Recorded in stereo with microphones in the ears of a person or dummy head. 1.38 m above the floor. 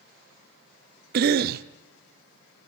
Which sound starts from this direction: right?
A cough, at 1.1 s.